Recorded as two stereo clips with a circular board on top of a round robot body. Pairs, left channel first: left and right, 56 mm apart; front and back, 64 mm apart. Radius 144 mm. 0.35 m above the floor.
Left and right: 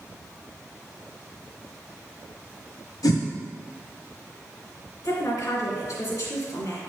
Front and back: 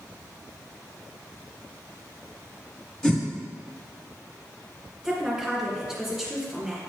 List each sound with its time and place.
3.0 s a whoosh: 85° left, 1.2 m
5.0 s a woman speaking: 100° left, 2.5 m